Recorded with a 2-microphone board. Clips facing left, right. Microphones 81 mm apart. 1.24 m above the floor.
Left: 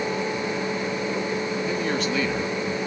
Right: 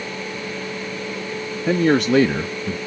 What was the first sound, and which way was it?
A man speaking, 75° right (ahead or behind).